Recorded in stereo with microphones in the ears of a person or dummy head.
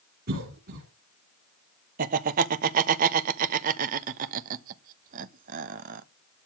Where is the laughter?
50° right (ahead or behind), 1.1 m.